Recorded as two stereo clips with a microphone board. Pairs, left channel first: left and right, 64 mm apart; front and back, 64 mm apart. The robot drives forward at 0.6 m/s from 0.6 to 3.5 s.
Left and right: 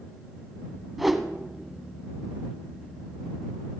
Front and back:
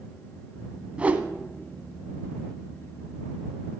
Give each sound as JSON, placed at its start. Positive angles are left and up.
{"t": 1.0, "sound": "a whoosh", "azimuth_deg": -175, "distance_m": 0.8}